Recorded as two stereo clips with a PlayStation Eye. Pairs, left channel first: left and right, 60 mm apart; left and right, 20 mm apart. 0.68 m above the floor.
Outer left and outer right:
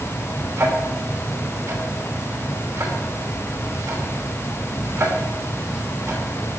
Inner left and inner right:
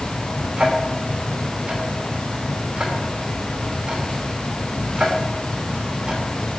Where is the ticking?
45° right (ahead or behind), 2.5 m.